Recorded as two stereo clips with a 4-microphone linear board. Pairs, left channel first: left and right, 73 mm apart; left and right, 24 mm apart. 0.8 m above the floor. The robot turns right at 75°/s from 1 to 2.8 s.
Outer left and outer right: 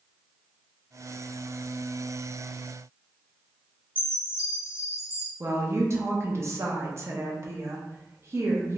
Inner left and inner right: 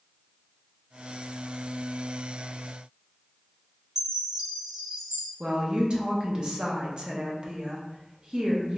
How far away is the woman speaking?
About 0.6 m.